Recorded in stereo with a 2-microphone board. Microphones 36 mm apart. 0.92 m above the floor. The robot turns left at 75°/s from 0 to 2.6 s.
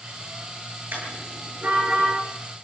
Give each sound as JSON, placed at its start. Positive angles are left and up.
{"t": 0.9, "sound": "a car horn", "side_deg": -70, "distance_m": 9.0}